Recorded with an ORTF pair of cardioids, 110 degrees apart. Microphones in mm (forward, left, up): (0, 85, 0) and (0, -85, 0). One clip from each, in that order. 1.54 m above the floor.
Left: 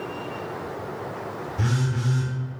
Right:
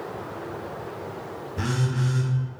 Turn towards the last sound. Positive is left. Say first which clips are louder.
# right 3 dB
turn(degrees=-55)